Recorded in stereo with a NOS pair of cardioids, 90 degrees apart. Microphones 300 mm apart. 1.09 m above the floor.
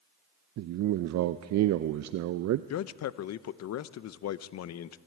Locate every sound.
0.6 s a man speaking: 65° right, 0.6 m
2.7 s a man speaking: 60° left, 0.7 m